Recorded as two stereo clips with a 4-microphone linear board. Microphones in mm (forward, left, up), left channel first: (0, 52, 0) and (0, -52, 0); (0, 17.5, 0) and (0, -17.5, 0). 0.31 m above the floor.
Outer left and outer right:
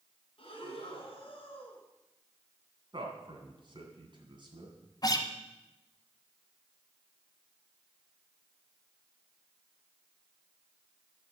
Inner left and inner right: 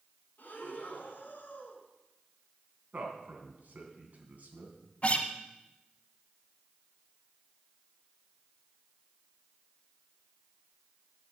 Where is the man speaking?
50° right (ahead or behind), 3 m.